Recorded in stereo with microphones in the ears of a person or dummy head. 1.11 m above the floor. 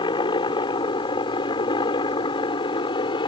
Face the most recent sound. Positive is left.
turn(degrees=25)  # may be behind; listen again after turning